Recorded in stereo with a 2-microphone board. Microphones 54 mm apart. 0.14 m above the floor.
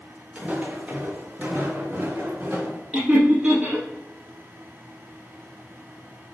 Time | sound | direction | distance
0.3 | footsteps | 20° right (ahead or behind) | 1.9 m
2.9 | laughter | 15° right (ahead or behind) | 2.5 m